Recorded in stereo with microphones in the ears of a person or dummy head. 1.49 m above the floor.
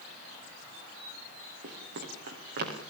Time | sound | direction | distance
1.6 | running footsteps | 50° right (ahead or behind) | 9 m